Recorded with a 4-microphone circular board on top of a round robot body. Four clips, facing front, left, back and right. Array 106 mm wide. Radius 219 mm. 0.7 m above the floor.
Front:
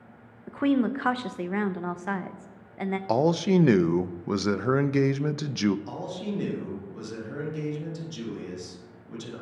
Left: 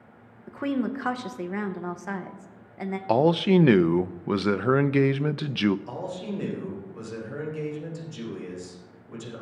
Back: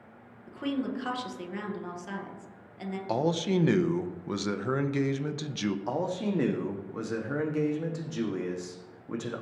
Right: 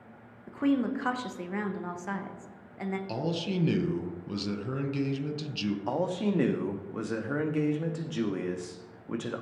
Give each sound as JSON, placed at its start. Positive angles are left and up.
{"t": 0.5, "sound": "a woman speaking", "azimuth_deg": 15, "distance_m": 1.1}
{"t": 3.1, "sound": "a man speaking", "azimuth_deg": 70, "distance_m": 0.6}
{"t": 5.9, "sound": "a man speaking", "azimuth_deg": -125, "distance_m": 1.5}